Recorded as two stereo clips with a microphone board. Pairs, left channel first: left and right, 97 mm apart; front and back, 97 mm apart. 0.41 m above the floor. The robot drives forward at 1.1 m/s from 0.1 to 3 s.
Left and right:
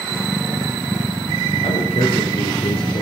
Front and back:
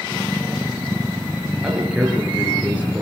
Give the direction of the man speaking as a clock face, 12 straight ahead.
9 o'clock.